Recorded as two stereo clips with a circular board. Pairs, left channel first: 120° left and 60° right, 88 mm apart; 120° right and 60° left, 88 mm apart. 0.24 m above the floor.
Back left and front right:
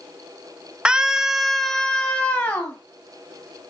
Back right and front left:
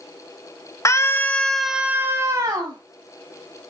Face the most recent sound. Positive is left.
turn(degrees=55)